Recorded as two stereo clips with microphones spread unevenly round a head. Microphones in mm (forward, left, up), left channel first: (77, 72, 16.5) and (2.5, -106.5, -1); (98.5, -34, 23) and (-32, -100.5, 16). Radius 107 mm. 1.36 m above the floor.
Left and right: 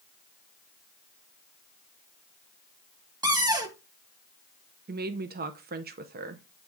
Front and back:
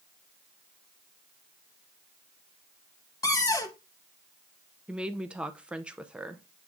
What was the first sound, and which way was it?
A cupboard door, 40° right.